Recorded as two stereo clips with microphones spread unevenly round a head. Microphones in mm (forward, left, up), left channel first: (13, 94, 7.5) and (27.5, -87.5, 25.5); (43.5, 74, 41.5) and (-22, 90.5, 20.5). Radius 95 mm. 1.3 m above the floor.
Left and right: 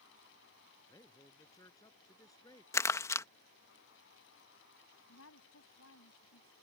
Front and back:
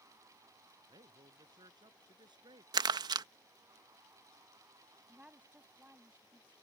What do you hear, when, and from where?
0.9 s a man speaking: 170° left
2.7 s crumpling: 170° left
5.1 s a woman speaking: 95° left